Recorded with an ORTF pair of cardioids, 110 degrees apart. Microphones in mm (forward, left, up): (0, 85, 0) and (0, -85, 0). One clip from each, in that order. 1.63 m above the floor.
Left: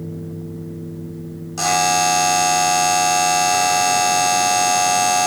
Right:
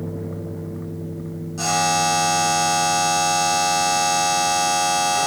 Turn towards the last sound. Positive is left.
turn(degrees=45)